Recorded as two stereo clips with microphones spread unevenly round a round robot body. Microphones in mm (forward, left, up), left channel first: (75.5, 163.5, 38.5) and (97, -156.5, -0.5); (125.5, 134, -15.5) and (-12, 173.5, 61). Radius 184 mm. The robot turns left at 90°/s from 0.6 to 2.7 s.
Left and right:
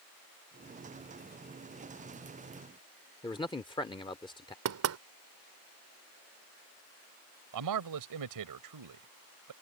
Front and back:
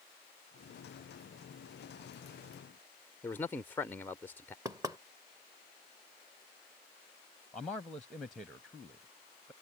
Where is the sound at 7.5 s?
90° right.